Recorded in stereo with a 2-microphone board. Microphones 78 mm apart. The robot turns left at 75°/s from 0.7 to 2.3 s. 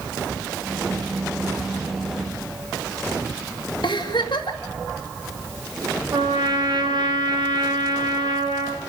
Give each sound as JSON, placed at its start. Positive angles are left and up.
{"t": 3.8, "sound": "a giggle", "side_deg": 75, "distance_m": 2.5}
{"t": 6.1, "sound": "a trumpet", "side_deg": -70, "distance_m": 3.0}